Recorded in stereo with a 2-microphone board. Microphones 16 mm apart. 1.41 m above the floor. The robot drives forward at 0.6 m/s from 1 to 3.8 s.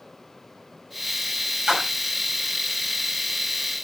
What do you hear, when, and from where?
1.7 s a splash: 40° right (ahead or behind), 6.5 m; by 2.1 s 35° right (ahead or behind), 7 m